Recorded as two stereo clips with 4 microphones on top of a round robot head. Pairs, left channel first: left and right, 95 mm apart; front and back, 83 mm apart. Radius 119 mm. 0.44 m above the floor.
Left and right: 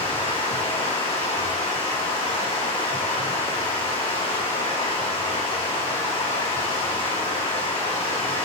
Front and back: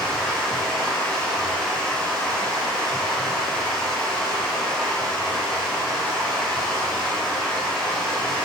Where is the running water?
80° left, 6 m.